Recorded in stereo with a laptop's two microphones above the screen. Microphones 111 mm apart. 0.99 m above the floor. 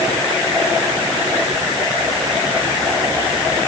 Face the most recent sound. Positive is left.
No sound to turn to.